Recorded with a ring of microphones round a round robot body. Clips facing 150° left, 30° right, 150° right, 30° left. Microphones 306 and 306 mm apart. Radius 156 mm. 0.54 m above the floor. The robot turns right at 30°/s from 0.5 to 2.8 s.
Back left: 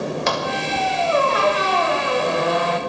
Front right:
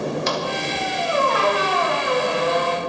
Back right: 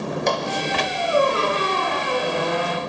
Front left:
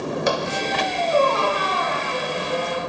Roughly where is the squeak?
Behind left.